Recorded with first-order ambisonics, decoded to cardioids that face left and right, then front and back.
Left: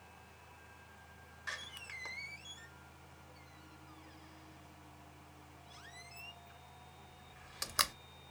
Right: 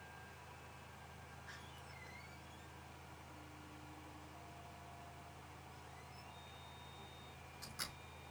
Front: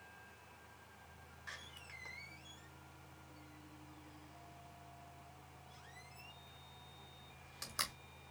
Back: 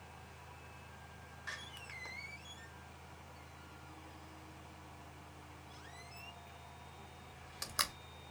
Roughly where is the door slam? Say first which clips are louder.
Left 14 dB, back 5 dB; left.